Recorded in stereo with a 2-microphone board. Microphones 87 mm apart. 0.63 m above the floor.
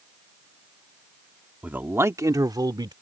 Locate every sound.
1.6 s a man speaking: 15° right (ahead or behind); by 2.9 s 55° right (ahead or behind)